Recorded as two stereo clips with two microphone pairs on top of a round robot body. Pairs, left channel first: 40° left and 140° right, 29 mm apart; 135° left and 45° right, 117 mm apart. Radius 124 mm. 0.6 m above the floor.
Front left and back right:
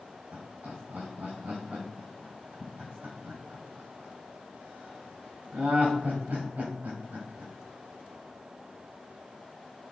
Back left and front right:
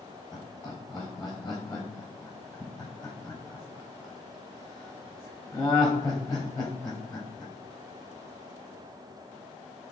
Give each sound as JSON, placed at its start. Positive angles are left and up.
{"t": 0.3, "sound": "laughter", "azimuth_deg": -165, "distance_m": 3.0}